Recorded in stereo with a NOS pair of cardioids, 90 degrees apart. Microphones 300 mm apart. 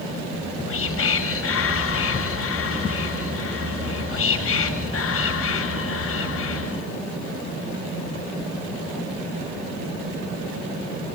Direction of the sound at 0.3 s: 45° left.